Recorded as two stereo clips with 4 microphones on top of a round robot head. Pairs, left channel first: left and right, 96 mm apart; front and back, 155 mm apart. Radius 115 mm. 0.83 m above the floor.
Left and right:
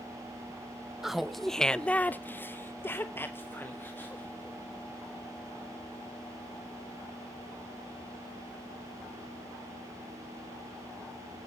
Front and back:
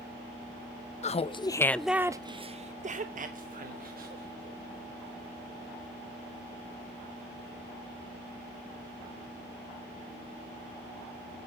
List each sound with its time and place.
1.0 s laughter: 5° right, 0.7 m; by 4.6 s 160° left, 1.8 m